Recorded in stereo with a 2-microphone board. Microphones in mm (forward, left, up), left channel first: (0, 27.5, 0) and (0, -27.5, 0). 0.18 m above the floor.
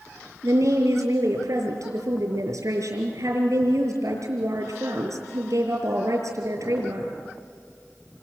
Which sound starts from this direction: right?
A woman speaking, at 0.4 s.